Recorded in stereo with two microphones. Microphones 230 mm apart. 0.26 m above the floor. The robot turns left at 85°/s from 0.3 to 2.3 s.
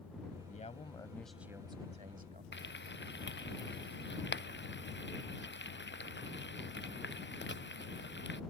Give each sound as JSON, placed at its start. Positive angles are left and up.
{"t": 0.5, "sound": "a man speaking", "azimuth_deg": 70}
{"t": 2.5, "sound": "frying", "side_deg": 55}